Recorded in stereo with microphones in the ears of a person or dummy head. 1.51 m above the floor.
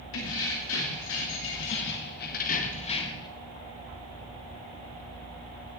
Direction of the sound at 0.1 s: 70° left (ahead or behind).